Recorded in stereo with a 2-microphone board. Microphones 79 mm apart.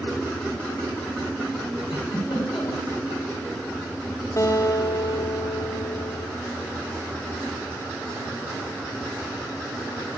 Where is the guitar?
40° left (ahead or behind), 1.6 m.